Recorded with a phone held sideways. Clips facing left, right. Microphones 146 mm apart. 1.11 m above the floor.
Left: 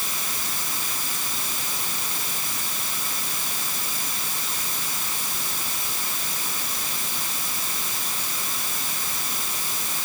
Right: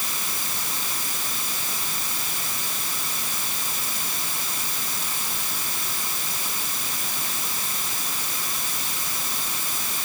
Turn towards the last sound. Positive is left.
No sound to turn to.